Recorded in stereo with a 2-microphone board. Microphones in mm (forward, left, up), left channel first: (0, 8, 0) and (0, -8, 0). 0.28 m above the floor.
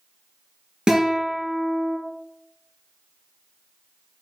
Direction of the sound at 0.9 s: 50° right (ahead or behind).